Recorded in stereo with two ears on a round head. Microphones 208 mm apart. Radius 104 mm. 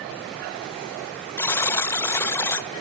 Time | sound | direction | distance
1.4 | a buzzer | 10° left (ahead or behind) | 0.6 m